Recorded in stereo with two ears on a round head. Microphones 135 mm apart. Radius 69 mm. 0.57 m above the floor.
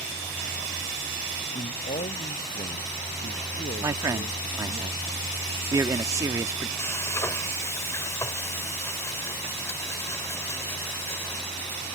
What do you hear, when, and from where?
1.6 s a man speaking: 45° left (ahead or behind)
3.8 s a man speaking: 20° right (ahead or behind)
6.8 s frying: 20° left (ahead or behind)